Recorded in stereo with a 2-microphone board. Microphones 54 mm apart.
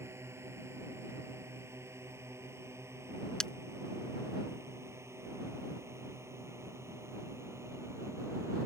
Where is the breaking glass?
10° left (ahead or behind).